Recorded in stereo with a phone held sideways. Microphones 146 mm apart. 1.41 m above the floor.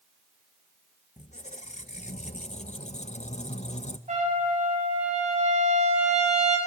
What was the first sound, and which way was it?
A squeak, 50° left (ahead or behind).